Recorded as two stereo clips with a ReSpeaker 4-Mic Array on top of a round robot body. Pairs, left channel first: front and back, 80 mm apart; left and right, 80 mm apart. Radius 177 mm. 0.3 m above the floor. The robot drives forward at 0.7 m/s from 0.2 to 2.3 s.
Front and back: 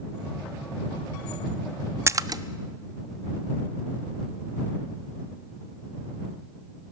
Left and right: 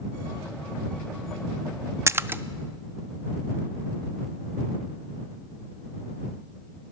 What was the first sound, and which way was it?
A splash, 135° right.